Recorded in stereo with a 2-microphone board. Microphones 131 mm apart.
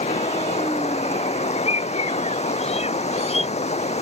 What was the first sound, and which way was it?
Running water, 55° left (ahead or behind).